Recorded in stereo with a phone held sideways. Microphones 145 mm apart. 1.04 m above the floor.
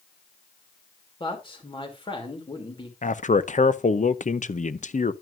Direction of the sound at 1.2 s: 40° left (ahead or behind).